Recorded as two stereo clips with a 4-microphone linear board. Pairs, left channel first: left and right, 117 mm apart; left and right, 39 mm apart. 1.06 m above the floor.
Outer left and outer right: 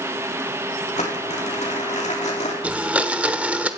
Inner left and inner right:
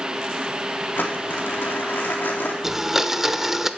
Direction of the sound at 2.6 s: 10° right (ahead or behind).